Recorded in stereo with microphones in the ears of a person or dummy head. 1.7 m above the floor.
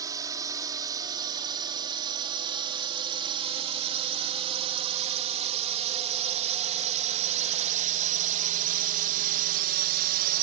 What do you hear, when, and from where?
0.0 s a drone: 20° right (ahead or behind); by 10.4 s 50° right (ahead or behind)